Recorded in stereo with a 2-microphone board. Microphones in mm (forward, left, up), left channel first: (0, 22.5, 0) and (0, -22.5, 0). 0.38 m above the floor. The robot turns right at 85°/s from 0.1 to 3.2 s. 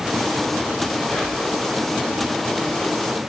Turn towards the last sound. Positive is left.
turn(degrees=-95)